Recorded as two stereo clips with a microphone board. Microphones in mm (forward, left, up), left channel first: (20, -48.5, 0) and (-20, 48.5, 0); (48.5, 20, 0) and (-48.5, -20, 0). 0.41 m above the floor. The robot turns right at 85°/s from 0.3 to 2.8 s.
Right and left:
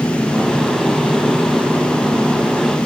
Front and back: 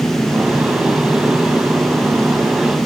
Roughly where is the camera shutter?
No camera shutter in this recording.